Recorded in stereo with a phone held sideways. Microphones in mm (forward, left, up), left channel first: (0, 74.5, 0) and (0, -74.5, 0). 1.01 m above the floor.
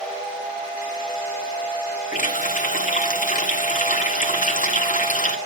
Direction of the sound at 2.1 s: 60° left (ahead or behind).